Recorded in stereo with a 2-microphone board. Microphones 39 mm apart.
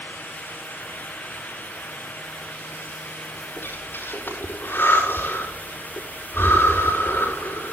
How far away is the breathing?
About 5.5 m.